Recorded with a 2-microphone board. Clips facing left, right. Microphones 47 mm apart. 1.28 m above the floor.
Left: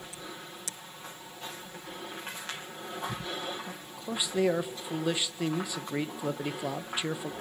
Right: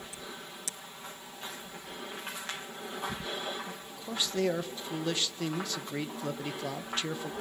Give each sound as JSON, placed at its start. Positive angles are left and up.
{"t": 3.7, "sound": "a man speaking", "side_deg": 15, "distance_m": 1.3}